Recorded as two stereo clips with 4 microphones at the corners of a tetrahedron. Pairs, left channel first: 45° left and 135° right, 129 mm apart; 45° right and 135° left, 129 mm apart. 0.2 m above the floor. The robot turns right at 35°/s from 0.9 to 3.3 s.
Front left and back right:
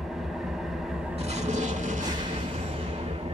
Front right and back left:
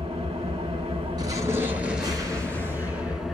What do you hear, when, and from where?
0.0 s an engine running: 140° left, 0.8 m; by 3.3 s 140° right, 0.8 m
1.2 s an explosion: 170° right, 0.7 m; by 3.2 s 95° right, 0.7 m